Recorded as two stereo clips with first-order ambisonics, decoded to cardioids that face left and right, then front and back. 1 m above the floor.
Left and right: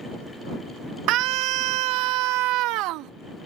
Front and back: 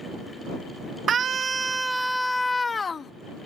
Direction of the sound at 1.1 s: 120° right.